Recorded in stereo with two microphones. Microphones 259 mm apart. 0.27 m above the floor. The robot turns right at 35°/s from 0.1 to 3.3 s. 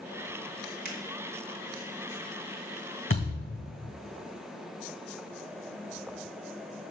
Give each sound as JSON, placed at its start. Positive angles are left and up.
{"t": 0.8, "sound": "a finger snap", "side_deg": -35, "distance_m": 2.5}
{"t": 3.1, "sound": "a thud", "side_deg": 50, "distance_m": 3.0}